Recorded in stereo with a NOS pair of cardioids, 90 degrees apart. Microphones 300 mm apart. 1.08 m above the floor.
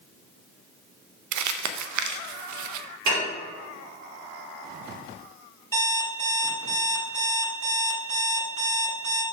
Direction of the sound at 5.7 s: 50° right.